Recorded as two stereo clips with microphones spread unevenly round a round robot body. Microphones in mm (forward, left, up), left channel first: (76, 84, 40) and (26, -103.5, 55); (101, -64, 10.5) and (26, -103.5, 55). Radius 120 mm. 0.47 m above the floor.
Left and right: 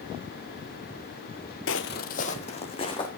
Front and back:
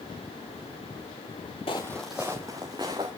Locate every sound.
1.7 s footsteps: 105° left, 0.6 m; by 3.1 s 145° left, 2.5 m